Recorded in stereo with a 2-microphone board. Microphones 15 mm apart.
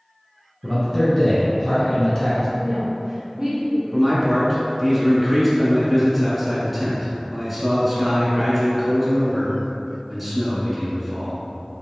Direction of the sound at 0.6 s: 30° left (ahead or behind).